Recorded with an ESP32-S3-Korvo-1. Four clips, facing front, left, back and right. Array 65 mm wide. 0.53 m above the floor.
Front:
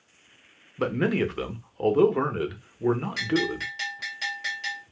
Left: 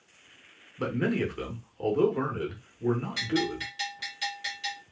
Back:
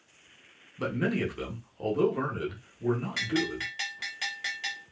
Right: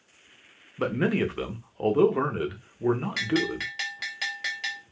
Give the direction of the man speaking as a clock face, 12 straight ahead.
1 o'clock.